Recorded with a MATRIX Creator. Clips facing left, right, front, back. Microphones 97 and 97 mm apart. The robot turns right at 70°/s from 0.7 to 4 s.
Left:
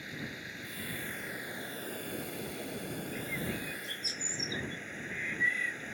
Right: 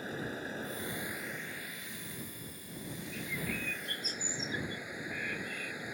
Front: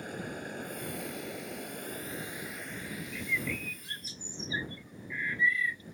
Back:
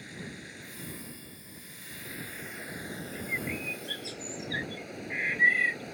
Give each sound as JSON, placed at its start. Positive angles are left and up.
{"t": 0.0, "sound": "running water", "azimuth_deg": -40}
{"t": 3.1, "sound": "a bird", "azimuth_deg": -125}